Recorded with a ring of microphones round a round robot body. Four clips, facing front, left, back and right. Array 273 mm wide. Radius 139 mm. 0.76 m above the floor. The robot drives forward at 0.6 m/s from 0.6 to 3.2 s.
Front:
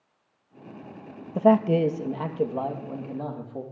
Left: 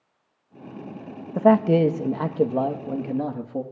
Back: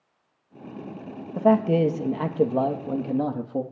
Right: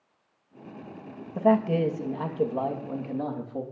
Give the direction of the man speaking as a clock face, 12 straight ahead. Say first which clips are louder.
Left 5 dB, even; 10 o'clock.